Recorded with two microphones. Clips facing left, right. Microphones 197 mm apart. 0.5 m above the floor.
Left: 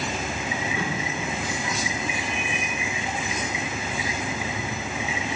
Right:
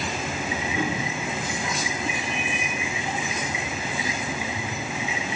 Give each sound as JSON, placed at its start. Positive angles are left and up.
{"t": 0.7, "sound": "a whoosh", "side_deg": -20, "distance_m": 4.0}